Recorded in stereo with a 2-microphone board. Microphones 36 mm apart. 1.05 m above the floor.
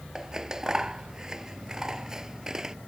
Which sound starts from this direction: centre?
Scissors, at 0.1 s.